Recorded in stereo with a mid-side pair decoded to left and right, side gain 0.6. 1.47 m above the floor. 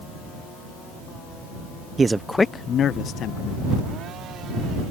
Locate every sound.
2.0 s a man speaking: 30° right; by 3.7 s 65° left